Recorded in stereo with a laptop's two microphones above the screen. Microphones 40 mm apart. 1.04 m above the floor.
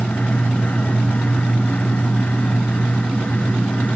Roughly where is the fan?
Left.